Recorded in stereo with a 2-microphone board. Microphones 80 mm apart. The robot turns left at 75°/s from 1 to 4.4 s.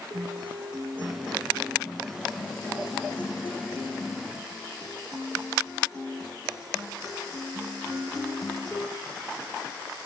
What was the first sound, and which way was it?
A guitar, 100° right.